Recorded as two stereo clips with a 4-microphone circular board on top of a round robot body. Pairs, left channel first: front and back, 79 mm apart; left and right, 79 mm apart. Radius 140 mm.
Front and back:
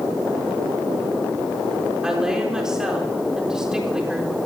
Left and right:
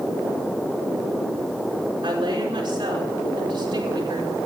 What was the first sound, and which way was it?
A woman speaking, 100° right.